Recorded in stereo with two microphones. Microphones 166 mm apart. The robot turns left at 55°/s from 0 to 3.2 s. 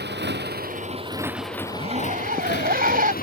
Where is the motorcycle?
75° right (ahead or behind); by 3.2 s 55° left (ahead or behind).